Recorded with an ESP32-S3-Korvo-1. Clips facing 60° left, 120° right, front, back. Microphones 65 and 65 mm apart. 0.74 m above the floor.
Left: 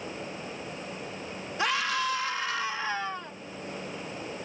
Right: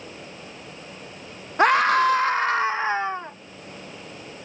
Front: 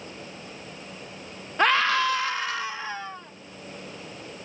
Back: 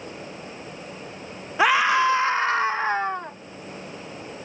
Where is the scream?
100° right; by 3.4 s 175° right.